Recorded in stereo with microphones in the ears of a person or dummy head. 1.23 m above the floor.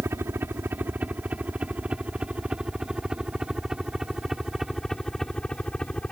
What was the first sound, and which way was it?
A helicopter, 15° right (ahead or behind).